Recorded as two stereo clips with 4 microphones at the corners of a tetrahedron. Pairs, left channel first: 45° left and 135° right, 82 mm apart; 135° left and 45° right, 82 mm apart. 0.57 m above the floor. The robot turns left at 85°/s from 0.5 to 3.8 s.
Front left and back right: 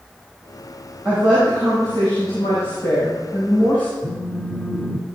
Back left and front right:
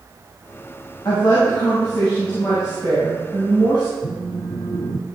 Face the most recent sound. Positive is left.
turn(degrees=125)